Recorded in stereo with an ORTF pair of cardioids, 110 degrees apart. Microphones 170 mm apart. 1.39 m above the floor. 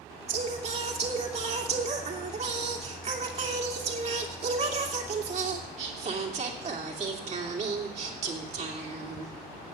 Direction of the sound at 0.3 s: 40° right.